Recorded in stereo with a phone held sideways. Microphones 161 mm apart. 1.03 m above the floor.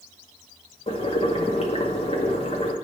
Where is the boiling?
35° left (ahead or behind), 0.8 m.